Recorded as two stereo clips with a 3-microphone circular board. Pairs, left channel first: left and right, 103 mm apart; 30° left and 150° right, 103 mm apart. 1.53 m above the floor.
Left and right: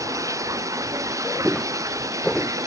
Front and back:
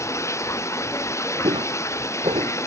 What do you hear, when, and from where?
0.0 s running water: 30° right
1.4 s footsteps: 175° right; by 2.5 s 175° left